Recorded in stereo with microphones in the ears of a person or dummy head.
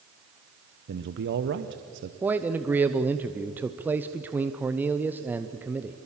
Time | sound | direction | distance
0.9 | a man speaking | 55° right (ahead or behind) | 0.9 m
2.2 | a man speaking | 10° right (ahead or behind) | 0.6 m